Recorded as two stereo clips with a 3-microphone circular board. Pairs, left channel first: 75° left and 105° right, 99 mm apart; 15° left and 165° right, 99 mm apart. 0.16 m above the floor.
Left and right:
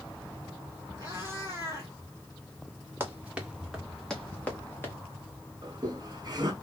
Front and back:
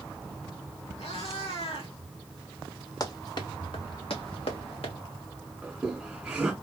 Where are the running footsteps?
35° right, 1.6 m; by 5.0 s 5° left, 1.9 m.